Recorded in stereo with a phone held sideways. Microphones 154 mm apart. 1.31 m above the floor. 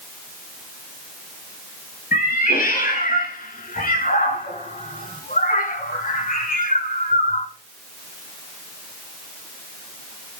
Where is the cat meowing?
80° left, 6.5 m; by 7.5 s 60° left (ahead or behind), 1.8 m.